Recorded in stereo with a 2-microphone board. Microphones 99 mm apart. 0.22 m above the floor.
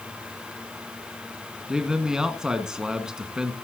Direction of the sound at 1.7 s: 5° right (ahead or behind).